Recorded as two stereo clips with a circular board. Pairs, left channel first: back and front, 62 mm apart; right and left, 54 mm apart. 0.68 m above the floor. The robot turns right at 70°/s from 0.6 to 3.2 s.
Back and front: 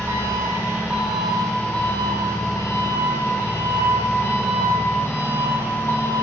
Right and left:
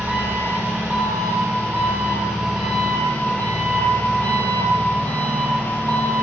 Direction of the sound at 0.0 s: 40° left.